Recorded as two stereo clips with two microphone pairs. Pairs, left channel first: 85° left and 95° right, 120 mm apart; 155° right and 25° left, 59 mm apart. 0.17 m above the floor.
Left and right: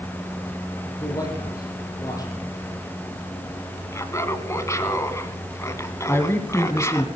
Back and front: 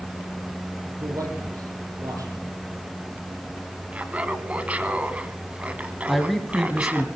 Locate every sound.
1.0 s a man speaking: 30° left, 6 m
3.9 s laughter: 60° left, 1.6 m
6.1 s a man speaking: 115° left, 1.4 m